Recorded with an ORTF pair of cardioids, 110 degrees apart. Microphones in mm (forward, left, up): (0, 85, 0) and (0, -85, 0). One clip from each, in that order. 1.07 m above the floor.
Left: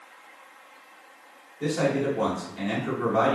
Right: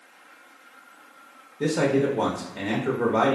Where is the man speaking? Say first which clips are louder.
Right 3 dB; 55° right, 0.7 m.